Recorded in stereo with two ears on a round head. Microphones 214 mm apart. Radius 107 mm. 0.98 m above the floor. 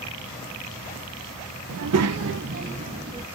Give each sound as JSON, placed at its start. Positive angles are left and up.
{"t": 1.7, "sound": "a child speaking", "side_deg": -65, "distance_m": 0.6}